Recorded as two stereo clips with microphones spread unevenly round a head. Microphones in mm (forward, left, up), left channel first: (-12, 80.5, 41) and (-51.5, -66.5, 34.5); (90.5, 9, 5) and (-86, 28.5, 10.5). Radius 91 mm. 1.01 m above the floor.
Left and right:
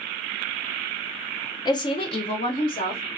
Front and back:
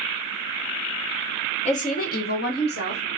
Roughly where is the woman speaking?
Ahead.